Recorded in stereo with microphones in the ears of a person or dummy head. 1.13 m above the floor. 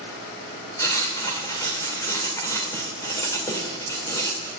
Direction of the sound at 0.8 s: 10° left (ahead or behind).